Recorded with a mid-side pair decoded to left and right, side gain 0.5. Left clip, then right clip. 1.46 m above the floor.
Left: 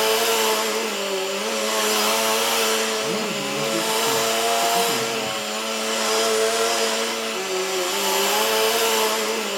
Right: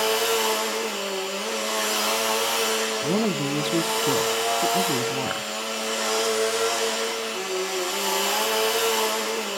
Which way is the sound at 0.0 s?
30° left.